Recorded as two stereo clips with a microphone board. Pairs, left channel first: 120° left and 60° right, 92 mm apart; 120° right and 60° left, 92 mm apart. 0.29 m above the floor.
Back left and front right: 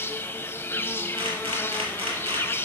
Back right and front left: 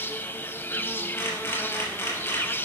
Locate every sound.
0.0 s an insect: straight behind, 0.7 m
1.2 s a camera shutter: 60° right, 4 m